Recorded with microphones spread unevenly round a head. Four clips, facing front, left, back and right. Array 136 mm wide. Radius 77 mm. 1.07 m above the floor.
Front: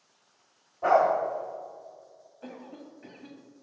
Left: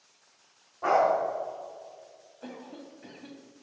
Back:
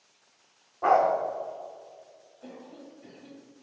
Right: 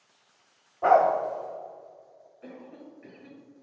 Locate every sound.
0.8 s a dog barking: 165° right, 1.2 m
2.4 s a cough: 50° left, 1.4 m